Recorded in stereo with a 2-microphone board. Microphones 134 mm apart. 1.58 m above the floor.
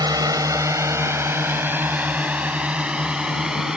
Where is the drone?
30° right (ahead or behind); by 3.8 s 5° right (ahead or behind).